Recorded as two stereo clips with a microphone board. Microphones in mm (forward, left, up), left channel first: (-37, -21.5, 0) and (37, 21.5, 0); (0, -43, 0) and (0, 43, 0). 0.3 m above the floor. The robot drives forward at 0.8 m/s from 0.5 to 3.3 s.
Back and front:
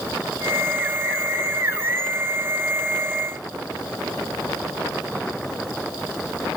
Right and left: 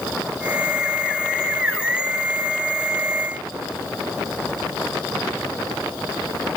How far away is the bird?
No bird in this recording.